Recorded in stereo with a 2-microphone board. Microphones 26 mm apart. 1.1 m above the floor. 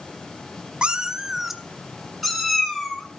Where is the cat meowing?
35° right (ahead or behind), 0.7 m; by 3.1 s 10° left (ahead or behind), 3 m.